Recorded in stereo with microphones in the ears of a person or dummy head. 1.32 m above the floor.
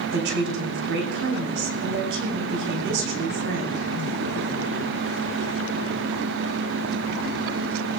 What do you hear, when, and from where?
0.1 s a woman speaking: 70° right (ahead or behind), 3 m